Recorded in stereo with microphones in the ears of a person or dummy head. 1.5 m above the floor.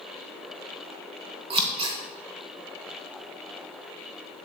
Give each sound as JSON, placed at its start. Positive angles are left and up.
{"t": 1.5, "sound": "scissors", "side_deg": -25, "distance_m": 0.9}